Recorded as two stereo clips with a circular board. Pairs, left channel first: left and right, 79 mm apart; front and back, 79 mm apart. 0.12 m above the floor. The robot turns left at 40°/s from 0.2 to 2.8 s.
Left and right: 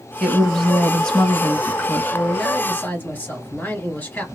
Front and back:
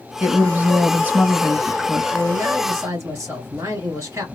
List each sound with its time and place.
0.2 s a woman speaking: straight behind, 1.4 m; by 2.0 s 110° left, 1.4 m
2.1 s a man speaking: 175° left, 2 m; by 4.2 s 150° left, 2 m